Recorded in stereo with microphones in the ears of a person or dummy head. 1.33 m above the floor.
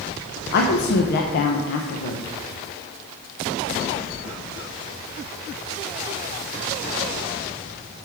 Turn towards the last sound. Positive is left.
turn(degrees=50)  # may be behind; listen again after turning